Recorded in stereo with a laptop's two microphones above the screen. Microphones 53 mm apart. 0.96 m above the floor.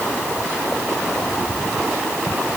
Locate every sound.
Only background noise.